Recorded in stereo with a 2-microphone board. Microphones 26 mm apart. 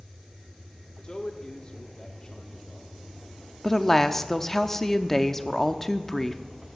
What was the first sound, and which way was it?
A man speaking, 35° left (ahead or behind).